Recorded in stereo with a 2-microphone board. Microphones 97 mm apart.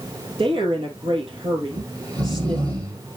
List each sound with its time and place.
0.4 s a woman speaking: 65° right (ahead or behind), 3 m
1.7 s snoring: 45° right (ahead or behind), 3 m